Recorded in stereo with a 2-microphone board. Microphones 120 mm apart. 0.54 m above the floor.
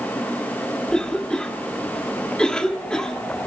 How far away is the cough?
About 1.2 m.